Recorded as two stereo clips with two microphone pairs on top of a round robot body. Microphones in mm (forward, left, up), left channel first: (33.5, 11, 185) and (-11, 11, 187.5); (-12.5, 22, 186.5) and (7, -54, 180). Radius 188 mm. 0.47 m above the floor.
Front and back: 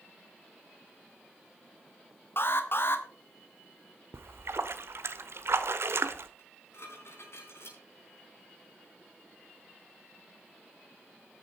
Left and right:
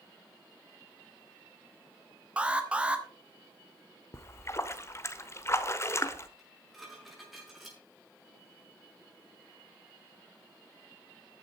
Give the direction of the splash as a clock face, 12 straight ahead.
7 o'clock.